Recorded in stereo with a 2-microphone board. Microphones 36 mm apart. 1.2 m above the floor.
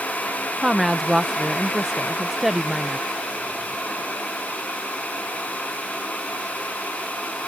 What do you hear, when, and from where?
0.6 s a woman speaking: 10° right (ahead or behind)